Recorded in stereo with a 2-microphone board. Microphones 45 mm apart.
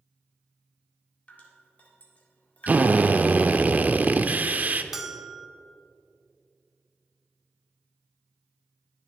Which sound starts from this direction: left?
Dripping, at 1.3 s.